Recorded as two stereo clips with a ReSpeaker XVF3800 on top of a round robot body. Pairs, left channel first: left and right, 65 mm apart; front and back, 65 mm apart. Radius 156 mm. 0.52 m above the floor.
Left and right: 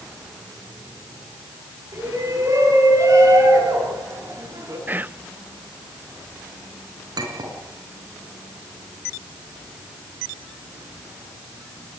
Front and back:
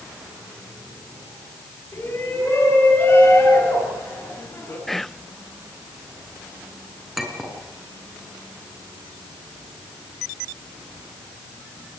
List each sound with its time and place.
1.9 s a shout: 65° right, 8.5 m
4.9 s whispering: 85° right, 0.7 m
7.2 s a clink: 90° right, 5 m